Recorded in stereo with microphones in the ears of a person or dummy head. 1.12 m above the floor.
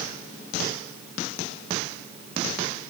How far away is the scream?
I don't hear a scream.